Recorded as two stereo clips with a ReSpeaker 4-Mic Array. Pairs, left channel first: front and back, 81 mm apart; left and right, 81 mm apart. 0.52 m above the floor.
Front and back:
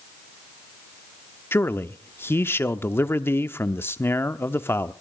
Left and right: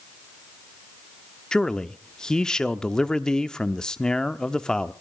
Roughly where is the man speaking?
Ahead.